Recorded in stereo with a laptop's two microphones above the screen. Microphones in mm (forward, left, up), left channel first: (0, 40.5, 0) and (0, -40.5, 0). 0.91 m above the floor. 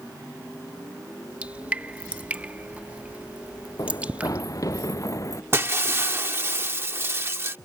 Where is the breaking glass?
35° right (ahead or behind).